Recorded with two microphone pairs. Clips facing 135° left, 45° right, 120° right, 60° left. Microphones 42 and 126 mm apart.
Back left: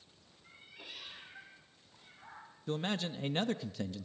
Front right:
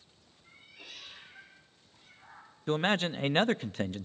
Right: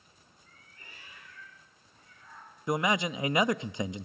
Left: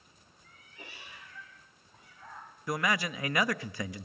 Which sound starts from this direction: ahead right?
A man speaking, at 2.7 s.